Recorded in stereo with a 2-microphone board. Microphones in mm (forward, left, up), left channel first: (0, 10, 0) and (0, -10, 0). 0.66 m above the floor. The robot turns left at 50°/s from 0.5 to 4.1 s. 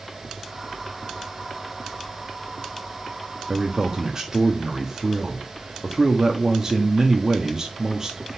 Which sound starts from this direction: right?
A man speaking, at 3.5 s.